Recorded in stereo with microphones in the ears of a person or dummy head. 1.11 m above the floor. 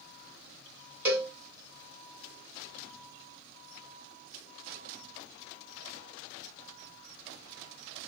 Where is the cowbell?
10° right (ahead or behind), 1.3 m.